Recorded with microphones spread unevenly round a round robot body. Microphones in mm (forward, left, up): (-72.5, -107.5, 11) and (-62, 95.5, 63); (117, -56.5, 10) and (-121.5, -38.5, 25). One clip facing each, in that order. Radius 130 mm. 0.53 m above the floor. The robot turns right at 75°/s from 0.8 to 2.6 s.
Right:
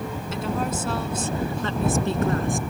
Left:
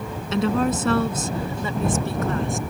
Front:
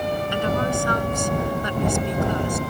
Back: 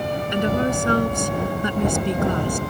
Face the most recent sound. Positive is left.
turn(degrees=-125)